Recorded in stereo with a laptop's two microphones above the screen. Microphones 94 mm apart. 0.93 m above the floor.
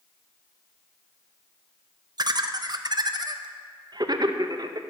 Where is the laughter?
50° right (ahead or behind), 0.5 m.